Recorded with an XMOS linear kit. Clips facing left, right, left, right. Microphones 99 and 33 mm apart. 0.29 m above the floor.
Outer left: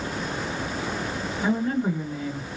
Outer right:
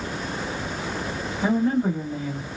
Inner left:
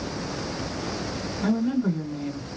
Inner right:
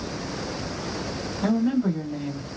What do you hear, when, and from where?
1.4 s a woman speaking: 30° right (ahead or behind), 1.4 m